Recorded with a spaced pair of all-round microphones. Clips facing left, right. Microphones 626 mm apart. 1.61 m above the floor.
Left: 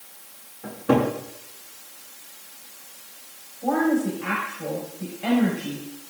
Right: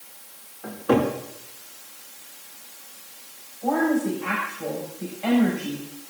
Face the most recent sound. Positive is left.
turn(degrees=45)  # may be behind; listen again after turning